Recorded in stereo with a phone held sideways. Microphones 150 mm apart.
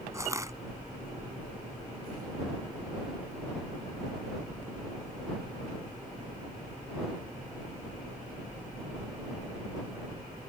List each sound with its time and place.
0.1 s crushing: 20° right (ahead or behind)